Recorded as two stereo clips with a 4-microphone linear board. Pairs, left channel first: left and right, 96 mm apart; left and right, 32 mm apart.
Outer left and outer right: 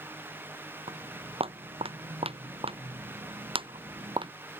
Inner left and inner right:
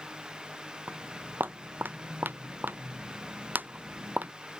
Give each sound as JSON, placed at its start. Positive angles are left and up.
{"t": 0.9, "sound": "footsteps", "side_deg": -80}